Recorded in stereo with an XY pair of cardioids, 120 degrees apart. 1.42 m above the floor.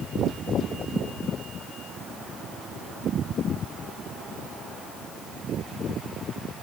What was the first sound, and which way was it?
Only background noise.